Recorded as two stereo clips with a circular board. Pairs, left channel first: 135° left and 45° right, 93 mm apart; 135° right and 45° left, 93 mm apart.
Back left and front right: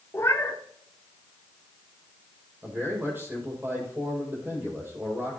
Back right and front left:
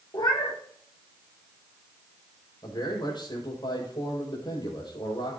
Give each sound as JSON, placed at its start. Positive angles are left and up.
{"t": 0.1, "sound": "a cat meowing", "azimuth_deg": -165, "distance_m": 2.0}
{"t": 2.6, "sound": "a man speaking", "azimuth_deg": -110, "distance_m": 6.0}